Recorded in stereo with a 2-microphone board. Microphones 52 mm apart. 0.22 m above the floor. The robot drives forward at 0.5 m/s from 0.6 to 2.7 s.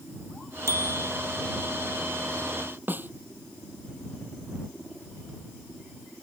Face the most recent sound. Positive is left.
turn(degrees=-40)  # may be behind; listen again after turning